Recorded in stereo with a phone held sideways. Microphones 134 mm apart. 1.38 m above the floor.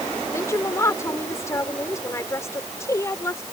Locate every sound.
0.3 s a woman speaking: 20° left (ahead or behind)